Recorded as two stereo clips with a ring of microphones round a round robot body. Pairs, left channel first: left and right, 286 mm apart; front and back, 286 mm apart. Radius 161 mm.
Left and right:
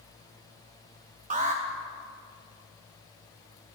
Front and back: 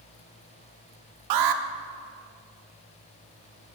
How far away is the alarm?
About 0.6 m.